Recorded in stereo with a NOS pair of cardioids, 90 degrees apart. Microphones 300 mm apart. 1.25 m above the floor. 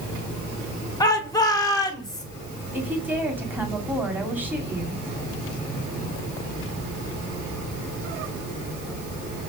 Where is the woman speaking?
5° right, 2.5 m.